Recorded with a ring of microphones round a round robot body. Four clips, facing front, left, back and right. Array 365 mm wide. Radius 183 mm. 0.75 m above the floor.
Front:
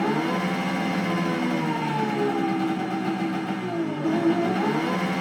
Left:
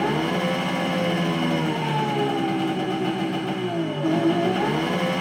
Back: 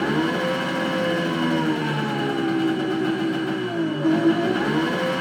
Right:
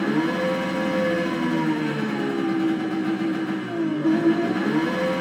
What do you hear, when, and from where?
0.0 s an engine running: 115° left, 0.7 m